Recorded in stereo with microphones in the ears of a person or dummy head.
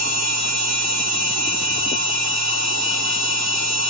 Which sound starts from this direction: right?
A machine running, at 0.0 s.